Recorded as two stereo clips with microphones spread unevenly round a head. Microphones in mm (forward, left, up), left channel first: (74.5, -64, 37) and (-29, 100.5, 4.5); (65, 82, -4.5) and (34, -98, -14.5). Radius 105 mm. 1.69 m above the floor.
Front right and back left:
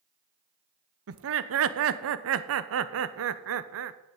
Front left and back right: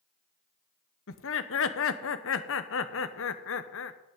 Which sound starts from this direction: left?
Laughter, at 1.1 s.